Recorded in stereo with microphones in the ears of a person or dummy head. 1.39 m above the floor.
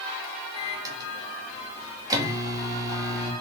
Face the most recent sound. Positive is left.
turn(degrees=-20)  # may be behind; listen again after turning